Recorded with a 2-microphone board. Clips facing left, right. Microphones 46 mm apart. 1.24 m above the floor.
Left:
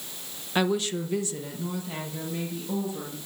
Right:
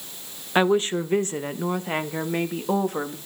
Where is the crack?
I don't hear a crack.